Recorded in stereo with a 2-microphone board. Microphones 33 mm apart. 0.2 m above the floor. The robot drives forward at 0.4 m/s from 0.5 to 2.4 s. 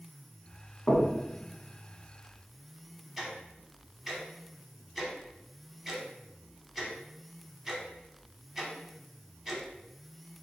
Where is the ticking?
5° right (ahead or behind), 1.0 m.